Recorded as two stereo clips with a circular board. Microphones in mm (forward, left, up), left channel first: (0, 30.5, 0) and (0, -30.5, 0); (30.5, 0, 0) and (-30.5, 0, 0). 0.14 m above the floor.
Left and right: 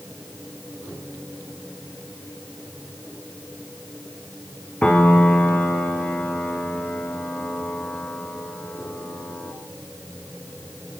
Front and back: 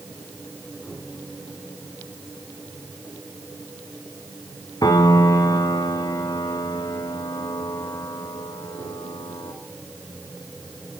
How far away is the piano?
About 3 m.